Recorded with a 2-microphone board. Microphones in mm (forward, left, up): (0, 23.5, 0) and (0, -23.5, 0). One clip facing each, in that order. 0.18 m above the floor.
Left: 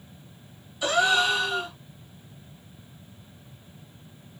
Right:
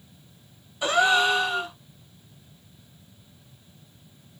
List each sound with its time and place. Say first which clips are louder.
0.8 s a gasp: right 2 dB; 25° right (ahead or behind), 1.2 m